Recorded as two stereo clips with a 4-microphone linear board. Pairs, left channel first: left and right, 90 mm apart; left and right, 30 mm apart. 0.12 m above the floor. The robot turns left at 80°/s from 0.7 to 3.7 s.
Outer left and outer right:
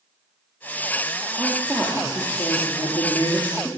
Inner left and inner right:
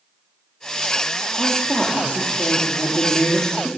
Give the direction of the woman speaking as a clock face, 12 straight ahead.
5 o'clock.